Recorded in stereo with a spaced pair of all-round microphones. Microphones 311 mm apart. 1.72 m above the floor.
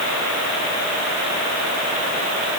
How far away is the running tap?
I don't hear a running tap.